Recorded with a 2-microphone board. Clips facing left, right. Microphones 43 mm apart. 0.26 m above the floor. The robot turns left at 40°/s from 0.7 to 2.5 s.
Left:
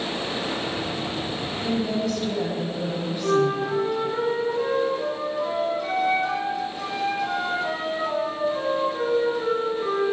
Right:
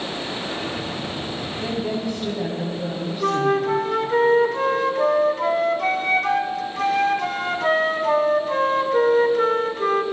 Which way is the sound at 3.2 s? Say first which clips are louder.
Right 2 dB; 60° right (ahead or behind).